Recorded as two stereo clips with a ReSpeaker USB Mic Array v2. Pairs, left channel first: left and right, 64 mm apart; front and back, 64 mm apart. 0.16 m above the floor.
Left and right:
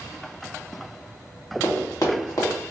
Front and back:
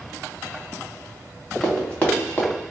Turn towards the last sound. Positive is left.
turn(degrees=65)